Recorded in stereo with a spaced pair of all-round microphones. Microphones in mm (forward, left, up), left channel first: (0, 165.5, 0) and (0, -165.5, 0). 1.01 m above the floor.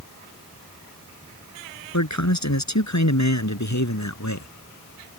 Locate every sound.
1.9 s a man speaking: 55° left (ahead or behind)